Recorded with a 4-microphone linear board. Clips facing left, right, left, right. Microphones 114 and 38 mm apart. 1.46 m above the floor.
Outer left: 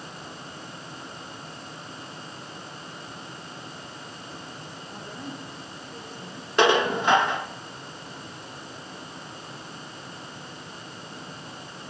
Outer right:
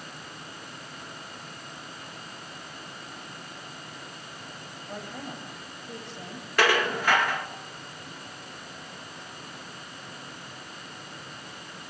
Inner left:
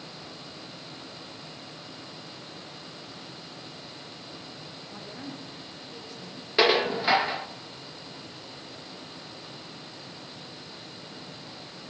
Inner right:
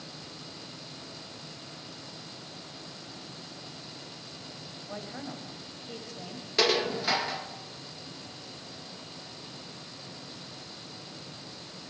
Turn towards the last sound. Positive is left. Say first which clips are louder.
# outer left 4 dB, inner left 4 dB
turn(degrees=20)  # may be behind; listen again after turning